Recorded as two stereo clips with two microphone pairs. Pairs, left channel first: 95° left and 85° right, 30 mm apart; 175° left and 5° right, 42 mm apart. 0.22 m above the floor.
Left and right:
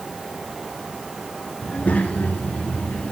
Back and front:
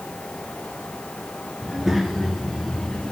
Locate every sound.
1.6 s a child speaking: 75° left, 2.5 m; by 3.1 s 105° left, 1.8 m